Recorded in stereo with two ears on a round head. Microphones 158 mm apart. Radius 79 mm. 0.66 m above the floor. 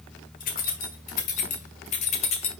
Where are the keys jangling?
45° left (ahead or behind), 3 m; by 2.5 s 35° left (ahead or behind), 1.7 m.